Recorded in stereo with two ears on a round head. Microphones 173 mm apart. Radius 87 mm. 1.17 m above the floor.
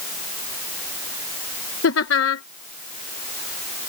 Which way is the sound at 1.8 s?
70° left (ahead or behind).